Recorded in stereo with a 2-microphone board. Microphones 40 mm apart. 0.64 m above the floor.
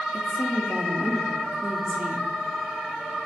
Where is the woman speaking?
25° right (ahead or behind), 0.8 m.